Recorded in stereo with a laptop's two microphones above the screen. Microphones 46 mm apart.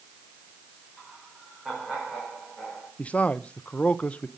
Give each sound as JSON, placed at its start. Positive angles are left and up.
{"t": 1.0, "sound": "laughter", "side_deg": -10, "distance_m": 5.0}
{"t": 3.0, "sound": "a man speaking", "side_deg": 30, "distance_m": 0.5}